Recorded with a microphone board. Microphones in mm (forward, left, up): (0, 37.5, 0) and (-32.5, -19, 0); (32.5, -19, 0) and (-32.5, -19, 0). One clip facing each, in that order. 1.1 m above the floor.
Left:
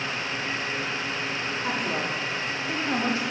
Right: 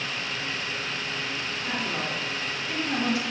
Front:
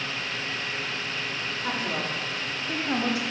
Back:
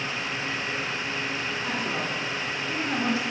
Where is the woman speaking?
40° left, 2 m; by 3.2 s 10° left, 1.7 m.